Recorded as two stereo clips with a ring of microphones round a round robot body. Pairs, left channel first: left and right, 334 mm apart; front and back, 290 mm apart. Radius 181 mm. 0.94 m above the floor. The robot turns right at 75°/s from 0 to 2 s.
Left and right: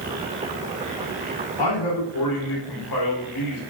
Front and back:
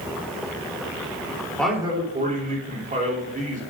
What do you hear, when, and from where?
1.6 s a man speaking: 85° left, 3 m; by 3.6 s 115° left, 3 m